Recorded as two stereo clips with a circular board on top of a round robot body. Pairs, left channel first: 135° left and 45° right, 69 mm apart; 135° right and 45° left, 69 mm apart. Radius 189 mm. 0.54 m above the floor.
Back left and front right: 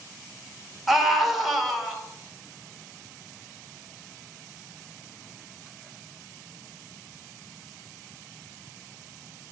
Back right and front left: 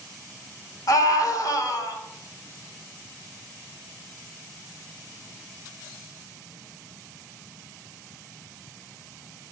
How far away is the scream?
About 2 m.